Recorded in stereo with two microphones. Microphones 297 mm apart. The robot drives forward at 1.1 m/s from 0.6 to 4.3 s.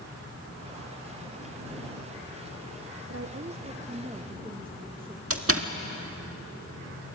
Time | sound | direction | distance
3.1 | a woman speaking | 50° right (ahead or behind) | 0.7 m
5.3 | a door slam | 50° right (ahead or behind) | 1.6 m